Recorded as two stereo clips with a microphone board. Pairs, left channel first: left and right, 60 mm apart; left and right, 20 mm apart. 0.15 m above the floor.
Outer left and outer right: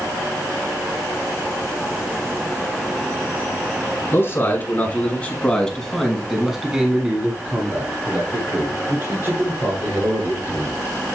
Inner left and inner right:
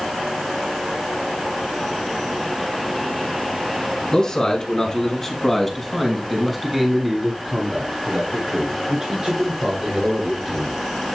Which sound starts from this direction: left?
A man speaking, at 4.1 s.